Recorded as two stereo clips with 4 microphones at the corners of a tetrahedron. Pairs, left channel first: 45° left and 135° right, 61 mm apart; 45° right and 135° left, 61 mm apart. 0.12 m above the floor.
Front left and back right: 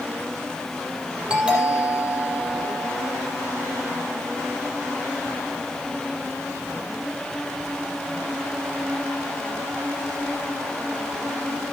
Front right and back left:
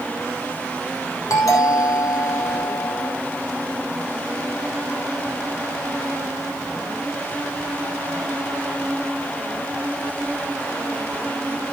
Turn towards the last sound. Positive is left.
turn(degrees=-65)